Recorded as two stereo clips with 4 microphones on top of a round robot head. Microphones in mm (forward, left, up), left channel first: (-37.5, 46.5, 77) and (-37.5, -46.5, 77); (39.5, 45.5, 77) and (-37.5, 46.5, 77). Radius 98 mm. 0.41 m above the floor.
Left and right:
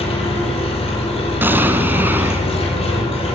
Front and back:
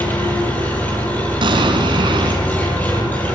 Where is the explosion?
160° right, 3 m.